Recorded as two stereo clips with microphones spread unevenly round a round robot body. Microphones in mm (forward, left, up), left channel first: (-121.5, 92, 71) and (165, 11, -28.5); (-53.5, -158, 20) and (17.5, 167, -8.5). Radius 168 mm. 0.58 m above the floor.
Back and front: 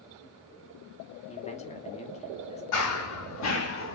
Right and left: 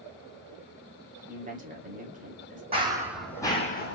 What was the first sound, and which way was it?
A man speaking, 80° left.